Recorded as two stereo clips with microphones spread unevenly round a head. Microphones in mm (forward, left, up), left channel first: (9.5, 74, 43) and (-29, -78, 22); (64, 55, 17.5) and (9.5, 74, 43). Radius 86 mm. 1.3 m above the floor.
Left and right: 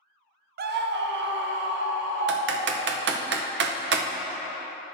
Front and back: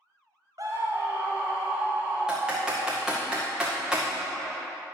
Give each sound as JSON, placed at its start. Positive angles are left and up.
{"t": 0.6, "sound": "a scream", "azimuth_deg": -135, "distance_m": 0.5}
{"t": 2.3, "sound": "typing on a keyboard", "azimuth_deg": -115, "distance_m": 0.8}